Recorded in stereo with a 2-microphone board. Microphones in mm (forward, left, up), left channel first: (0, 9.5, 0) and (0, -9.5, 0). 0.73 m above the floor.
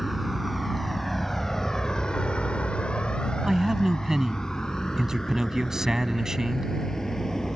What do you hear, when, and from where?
0.0 s a vehicle: 5° right (ahead or behind); by 7.6 s 30° left (ahead or behind)
3.4 s a man speaking: 35° right (ahead or behind)